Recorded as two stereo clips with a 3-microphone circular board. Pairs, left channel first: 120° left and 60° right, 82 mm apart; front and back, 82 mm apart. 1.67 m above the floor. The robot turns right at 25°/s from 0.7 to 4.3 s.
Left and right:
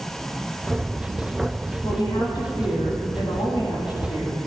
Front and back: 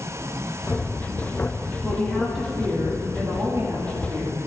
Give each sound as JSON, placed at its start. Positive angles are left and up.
{"t": 1.8, "sound": "a woman speaking", "azimuth_deg": 85, "distance_m": 3.5}